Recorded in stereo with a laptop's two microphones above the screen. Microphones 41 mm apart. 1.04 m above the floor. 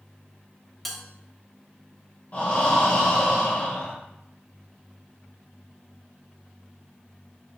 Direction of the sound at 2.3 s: 40° left (ahead or behind).